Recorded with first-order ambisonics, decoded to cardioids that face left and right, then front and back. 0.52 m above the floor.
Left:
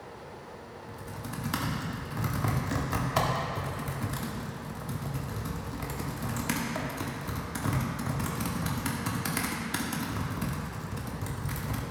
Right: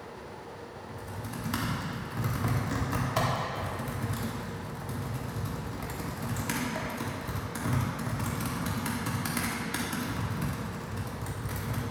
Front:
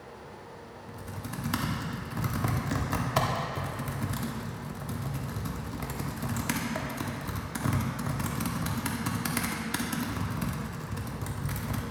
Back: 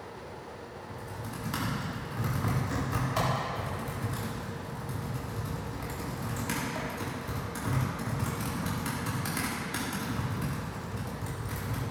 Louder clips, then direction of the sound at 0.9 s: Left 1 dB, front 1 dB; 25° left.